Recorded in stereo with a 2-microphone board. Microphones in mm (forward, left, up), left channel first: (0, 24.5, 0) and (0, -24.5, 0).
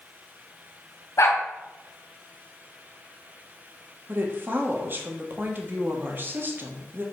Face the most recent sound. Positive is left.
turn(degrees=-45)  # may be behind; listen again after turning